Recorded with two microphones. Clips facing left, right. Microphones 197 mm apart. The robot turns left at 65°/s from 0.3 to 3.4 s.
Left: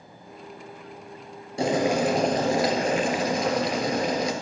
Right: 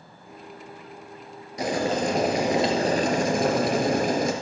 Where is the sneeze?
No sneeze in this recording.